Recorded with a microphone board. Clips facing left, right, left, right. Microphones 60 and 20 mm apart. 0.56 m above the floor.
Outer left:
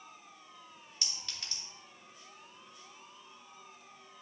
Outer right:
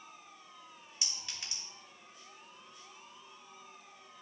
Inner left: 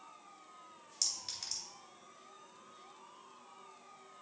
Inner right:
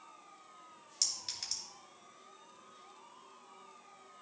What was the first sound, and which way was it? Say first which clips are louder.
A clink: even, inner right 1 dB; 15° right (ahead or behind).